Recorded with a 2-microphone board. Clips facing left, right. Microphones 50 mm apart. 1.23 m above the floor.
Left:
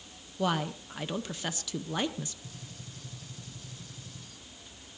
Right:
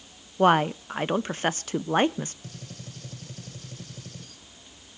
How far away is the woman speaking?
About 0.6 m.